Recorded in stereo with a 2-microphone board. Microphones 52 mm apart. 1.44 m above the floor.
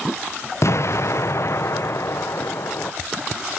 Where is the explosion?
60° left (ahead or behind), 0.6 m.